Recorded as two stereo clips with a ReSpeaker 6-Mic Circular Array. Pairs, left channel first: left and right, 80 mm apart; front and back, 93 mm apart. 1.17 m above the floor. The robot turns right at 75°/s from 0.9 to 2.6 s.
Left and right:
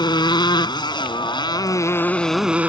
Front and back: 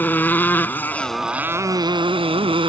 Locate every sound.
0.0 s a motorcycle: 70° left; by 2.7 s 165° right